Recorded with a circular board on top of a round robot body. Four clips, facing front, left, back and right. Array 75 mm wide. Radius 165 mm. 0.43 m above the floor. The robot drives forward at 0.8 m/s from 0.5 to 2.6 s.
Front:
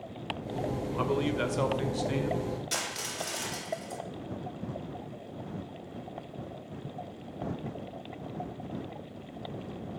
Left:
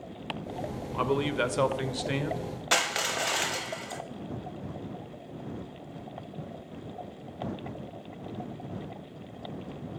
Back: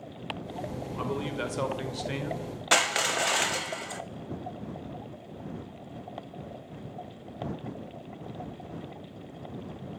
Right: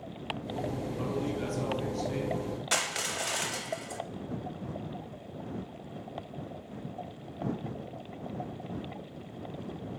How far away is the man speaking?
About 1.9 m.